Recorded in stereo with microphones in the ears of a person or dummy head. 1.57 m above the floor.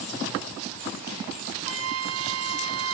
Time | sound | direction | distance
1.7 | a flute | 65° right (ahead or behind) | 0.6 m